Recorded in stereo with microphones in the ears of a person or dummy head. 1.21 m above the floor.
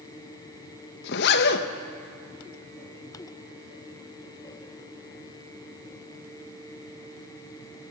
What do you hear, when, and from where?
1.0 s a zipper: 60° left (ahead or behind), 1.1 m